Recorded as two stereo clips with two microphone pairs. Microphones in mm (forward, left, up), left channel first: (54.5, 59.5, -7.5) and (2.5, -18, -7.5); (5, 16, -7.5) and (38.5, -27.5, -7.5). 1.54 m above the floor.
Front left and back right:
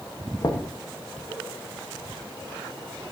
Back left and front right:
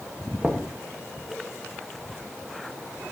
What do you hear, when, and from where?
0.4 s knocking: 15° left, 1.0 m